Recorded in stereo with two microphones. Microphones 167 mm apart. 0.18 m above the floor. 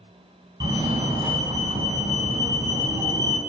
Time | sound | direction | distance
0.6 | a fire alarm | 25° right (ahead or behind) | 2.5 m